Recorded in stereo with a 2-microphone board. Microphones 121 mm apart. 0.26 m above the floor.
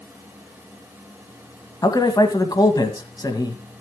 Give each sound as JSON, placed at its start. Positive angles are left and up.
{"t": 1.8, "sound": "a man speaking", "side_deg": 35, "distance_m": 1.9}